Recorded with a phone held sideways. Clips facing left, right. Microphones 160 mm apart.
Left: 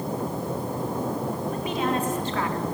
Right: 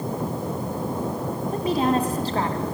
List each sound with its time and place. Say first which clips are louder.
1.5 s a woman speaking: right 7 dB; 35° right (ahead or behind), 3 m